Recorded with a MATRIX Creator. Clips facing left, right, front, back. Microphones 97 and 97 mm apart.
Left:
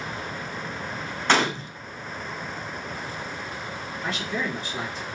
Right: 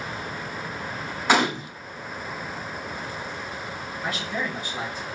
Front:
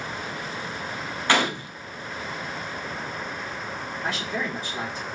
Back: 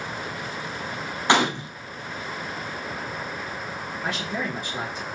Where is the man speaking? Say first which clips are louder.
Even, even; 165° right, 2 m.